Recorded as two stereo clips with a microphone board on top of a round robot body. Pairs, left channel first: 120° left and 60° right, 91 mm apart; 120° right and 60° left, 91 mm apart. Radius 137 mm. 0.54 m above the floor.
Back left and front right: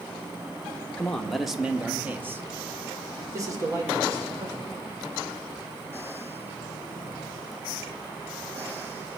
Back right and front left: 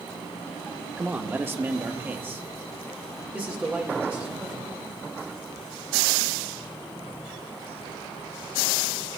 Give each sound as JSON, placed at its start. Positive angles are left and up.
{"t": 1.0, "sound": "a man speaking", "azimuth_deg": 70, "distance_m": 1.1}